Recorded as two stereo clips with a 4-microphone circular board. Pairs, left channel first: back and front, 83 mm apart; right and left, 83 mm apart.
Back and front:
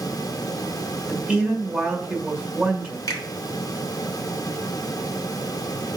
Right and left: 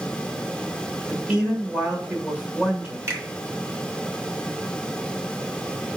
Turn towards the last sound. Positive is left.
turn(degrees=140)